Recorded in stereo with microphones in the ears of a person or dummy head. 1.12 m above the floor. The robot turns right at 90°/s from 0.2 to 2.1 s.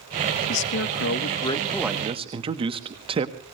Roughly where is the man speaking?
Ahead left.